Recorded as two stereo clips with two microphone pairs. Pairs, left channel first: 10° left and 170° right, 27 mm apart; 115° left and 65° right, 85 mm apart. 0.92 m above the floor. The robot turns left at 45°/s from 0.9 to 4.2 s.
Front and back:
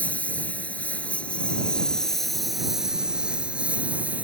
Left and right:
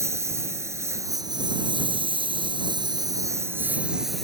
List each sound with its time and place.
0.0 s a lawn mower: 10° right; by 4.2 s 155° right